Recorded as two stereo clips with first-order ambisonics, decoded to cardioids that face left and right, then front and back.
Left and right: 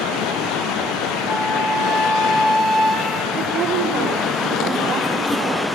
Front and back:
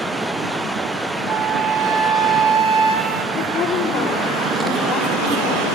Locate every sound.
1.3 s a flute: 165° right, 2.5 m
3.3 s a woman speaking: 60° right, 5 m